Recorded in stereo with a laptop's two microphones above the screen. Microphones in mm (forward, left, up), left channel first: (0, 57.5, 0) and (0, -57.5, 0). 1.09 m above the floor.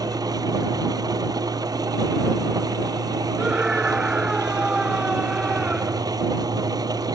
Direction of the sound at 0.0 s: 30° right (ahead or behind).